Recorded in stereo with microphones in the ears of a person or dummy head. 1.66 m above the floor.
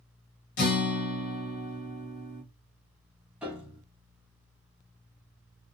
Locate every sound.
0.6 s a guitar: 50° left (ahead or behind), 1.3 m
3.4 s a piano: 5° right (ahead or behind), 1.3 m